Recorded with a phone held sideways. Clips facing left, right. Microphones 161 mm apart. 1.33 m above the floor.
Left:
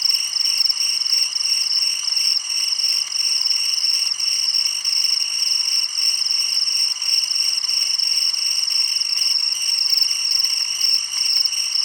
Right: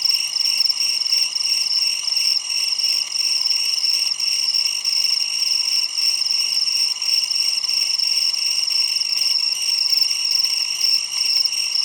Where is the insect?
20° right (ahead or behind).